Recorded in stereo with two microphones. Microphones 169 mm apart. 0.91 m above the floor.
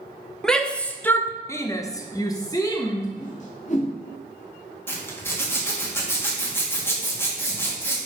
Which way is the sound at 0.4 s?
5° left (ahead or behind).